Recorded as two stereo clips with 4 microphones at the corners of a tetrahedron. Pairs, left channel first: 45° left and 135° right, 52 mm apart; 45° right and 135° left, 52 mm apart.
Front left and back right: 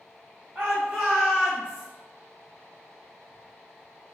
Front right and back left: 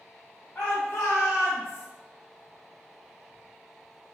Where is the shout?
90° right, 1.8 m; by 1.9 s 55° right, 1.2 m.